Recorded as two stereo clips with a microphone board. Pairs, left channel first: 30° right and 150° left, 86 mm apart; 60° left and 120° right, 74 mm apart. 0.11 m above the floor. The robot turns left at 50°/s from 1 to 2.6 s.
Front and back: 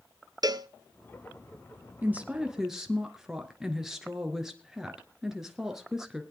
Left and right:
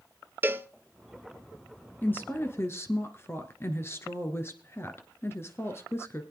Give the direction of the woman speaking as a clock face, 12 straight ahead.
9 o'clock.